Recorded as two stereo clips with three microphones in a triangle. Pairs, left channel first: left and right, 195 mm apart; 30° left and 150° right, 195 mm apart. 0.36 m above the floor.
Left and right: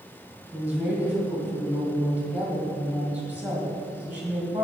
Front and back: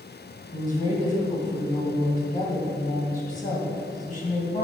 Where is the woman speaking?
10° right, 1.6 m.